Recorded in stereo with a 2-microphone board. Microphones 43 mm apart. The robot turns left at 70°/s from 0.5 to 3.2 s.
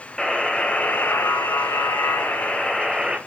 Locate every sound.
0.2 s a buzzer: 170° left, 1.7 m; by 3.2 s 20° right, 1.7 m